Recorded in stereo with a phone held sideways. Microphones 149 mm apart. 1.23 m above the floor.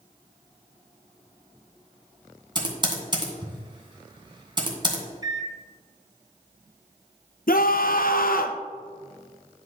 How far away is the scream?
About 0.8 m.